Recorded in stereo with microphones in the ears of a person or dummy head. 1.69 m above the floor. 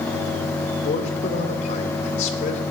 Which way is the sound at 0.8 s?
35° left (ahead or behind).